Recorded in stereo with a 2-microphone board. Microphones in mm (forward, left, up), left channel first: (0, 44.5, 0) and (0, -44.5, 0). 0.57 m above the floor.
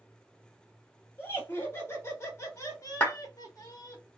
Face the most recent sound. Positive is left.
turn(degrees=25)  # may be behind; listen again after turning